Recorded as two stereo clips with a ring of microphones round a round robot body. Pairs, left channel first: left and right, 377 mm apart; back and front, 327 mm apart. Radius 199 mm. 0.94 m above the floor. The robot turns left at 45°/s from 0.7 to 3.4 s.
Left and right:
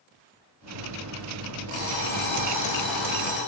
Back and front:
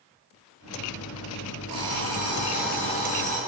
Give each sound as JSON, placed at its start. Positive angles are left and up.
{"t": 1.7, "sound": "an alarm clock", "azimuth_deg": -45, "distance_m": 8.5}